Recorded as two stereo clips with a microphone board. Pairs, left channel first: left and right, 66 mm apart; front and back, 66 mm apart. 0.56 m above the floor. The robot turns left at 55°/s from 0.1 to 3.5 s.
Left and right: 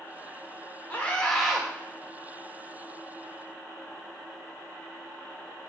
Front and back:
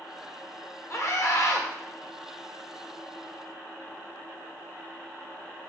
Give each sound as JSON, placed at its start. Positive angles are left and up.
{"t": 0.9, "sound": "a scream", "azimuth_deg": 35, "distance_m": 1.5}